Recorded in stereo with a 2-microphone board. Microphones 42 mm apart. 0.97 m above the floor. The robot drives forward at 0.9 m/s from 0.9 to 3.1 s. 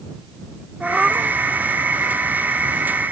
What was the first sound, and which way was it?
A cat meowing, 15° right (ahead or behind).